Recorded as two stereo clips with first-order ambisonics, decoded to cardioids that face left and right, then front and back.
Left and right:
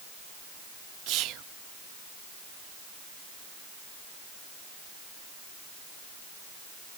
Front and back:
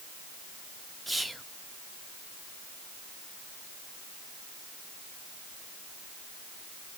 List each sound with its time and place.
1.1 s whispering: 95° right, 0.7 m